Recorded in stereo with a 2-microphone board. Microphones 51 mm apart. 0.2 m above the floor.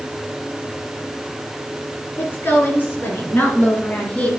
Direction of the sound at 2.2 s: 45° left (ahead or behind).